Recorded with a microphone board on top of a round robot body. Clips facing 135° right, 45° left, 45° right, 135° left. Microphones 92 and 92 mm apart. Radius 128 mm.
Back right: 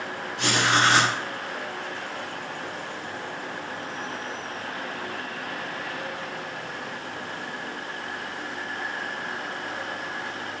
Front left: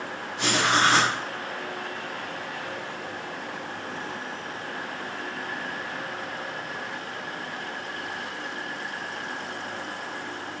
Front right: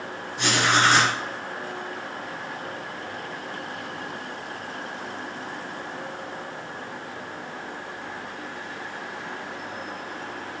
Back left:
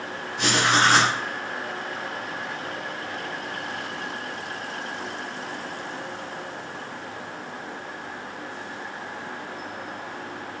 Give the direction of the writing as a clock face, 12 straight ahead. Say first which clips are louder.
Even, even; 8 o'clock.